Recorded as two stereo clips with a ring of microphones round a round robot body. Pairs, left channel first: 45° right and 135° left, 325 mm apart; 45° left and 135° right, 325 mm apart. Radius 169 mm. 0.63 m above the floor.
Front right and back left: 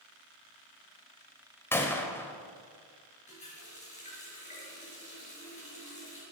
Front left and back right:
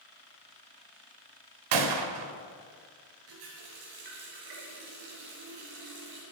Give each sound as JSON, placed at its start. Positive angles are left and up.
{"t": 1.7, "sound": "a gunshot", "azimuth_deg": -130, "distance_m": 1.5}
{"t": 3.3, "sound": "a running tap", "azimuth_deg": -115, "distance_m": 7.0}